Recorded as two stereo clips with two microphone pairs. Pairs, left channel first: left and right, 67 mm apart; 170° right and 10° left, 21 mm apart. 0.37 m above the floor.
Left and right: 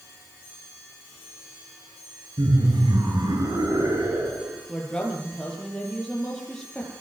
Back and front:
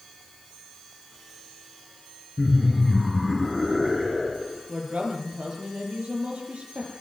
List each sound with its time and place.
2.4 s laughter: 85° right, 5.5 m; by 4.6 s 70° right, 8 m
4.7 s a woman speaking: 10° left, 9.5 m